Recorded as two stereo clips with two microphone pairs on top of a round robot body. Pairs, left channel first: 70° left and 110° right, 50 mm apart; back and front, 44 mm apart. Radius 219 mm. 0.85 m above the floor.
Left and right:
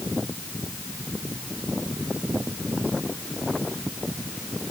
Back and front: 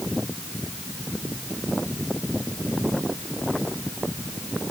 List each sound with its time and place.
Only background noise.